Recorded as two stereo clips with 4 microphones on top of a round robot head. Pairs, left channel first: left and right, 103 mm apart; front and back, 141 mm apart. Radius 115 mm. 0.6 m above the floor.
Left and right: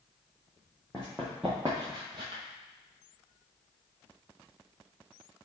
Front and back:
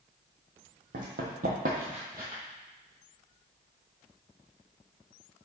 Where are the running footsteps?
175° left, 1.2 m; by 2.4 s 95° right, 0.7 m.